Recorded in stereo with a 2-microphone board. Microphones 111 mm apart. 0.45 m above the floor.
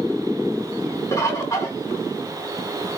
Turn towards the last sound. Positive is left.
turn(degrees=30)  # may be behind; listen again after turning